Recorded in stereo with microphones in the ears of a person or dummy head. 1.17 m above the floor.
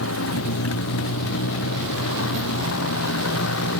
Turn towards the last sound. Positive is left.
turn(degrees=70)  # may be behind; listen again after turning